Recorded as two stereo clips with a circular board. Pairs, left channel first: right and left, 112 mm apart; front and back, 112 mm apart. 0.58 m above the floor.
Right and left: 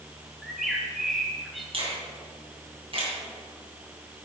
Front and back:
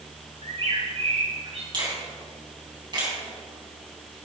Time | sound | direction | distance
0.4 | a bird | straight behind | 1.4 m
1.7 | a finger snap | 130° left | 3 m